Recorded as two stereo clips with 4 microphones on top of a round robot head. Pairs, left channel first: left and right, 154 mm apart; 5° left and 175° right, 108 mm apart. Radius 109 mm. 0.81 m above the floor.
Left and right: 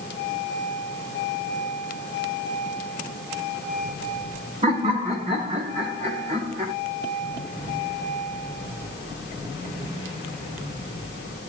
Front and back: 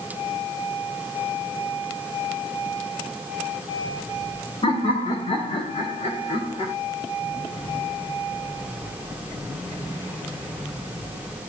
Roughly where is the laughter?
Ahead right.